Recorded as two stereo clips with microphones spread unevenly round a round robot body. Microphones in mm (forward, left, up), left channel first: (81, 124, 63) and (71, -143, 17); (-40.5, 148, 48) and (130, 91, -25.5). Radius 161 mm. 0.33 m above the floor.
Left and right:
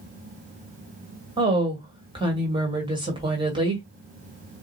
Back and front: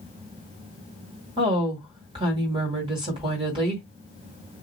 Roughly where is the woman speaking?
Ahead right.